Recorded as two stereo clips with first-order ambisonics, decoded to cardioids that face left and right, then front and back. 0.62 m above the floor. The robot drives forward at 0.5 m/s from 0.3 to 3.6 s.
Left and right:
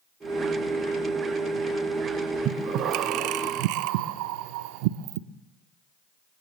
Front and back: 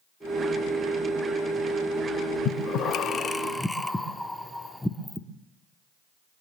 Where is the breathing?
40° right, 0.8 m; by 5.2 s 85° right, 0.5 m.